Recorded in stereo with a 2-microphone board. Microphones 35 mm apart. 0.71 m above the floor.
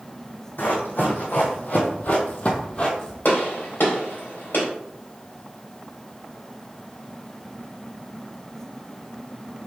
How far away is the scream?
No scream in this recording.